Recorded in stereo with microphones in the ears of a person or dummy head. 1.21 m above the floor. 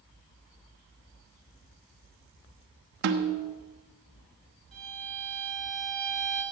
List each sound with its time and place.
3.0 s a snare drum: 55° right (ahead or behind), 1.2 m
4.7 s a violin: centre (ahead or behind), 4.5 m